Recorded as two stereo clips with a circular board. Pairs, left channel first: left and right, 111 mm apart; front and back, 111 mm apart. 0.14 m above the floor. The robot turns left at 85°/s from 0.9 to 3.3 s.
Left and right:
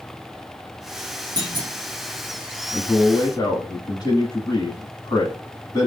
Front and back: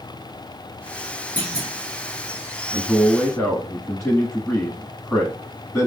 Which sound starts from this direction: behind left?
A man speaking, at 2.7 s.